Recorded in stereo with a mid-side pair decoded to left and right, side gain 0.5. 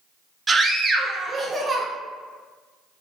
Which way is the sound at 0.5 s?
25° right.